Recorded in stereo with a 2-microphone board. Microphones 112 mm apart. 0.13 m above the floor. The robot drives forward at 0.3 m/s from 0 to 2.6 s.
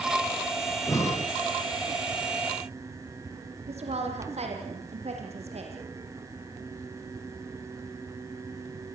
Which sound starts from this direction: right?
A woman speaking, at 3.7 s.